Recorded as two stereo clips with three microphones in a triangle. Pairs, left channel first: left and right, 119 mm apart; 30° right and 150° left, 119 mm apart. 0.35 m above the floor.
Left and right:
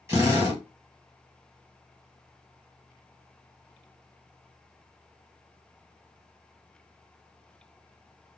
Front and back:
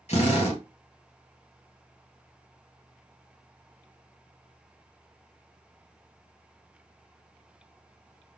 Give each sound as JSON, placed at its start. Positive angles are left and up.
{"t": 0.1, "sound": "a drill", "azimuth_deg": -30, "distance_m": 2.0}